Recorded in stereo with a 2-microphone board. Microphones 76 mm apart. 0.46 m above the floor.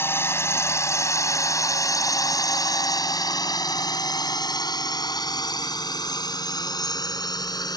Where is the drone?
30° left (ahead or behind); by 7.8 s 70° left (ahead or behind).